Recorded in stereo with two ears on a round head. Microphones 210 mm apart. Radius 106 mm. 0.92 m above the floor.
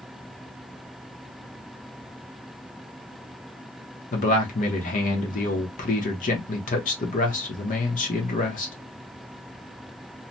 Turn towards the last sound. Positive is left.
turn(degrees=35)  # may be behind; listen again after turning